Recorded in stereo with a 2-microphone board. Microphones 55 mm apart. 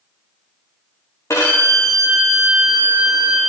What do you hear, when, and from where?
1.3 s a violin: 65° left (ahead or behind), 4 m